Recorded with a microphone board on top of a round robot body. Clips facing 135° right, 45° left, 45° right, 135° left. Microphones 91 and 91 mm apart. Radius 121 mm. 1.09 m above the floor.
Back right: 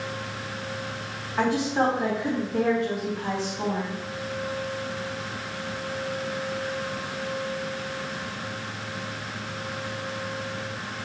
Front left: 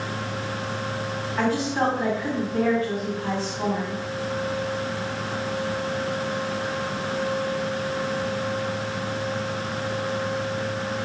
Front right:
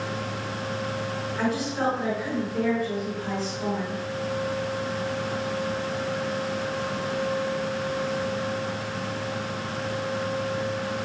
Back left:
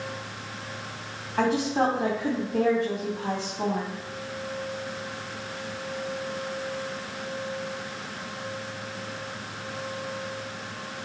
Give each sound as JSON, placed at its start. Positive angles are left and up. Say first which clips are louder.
{"t": 1.4, "sound": "a woman speaking", "louder": "back right 1 dB, back left 4 dB", "azimuth_deg": 155, "distance_m": 2.5}